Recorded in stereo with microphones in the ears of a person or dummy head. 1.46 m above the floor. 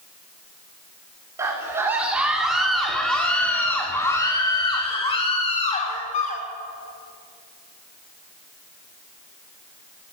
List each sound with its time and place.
1.4 s a scream: 15° right (ahead or behind), 5 m; by 6.5 s 40° left (ahead or behind), 5.5 m